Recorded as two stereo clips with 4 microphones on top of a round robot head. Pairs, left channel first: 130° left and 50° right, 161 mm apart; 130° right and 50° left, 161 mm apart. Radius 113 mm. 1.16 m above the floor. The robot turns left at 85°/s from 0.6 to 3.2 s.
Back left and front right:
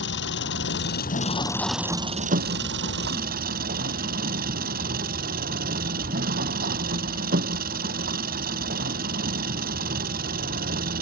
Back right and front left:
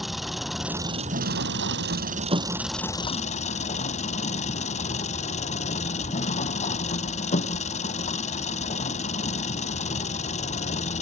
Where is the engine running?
135° left; by 11.0 s 85° right.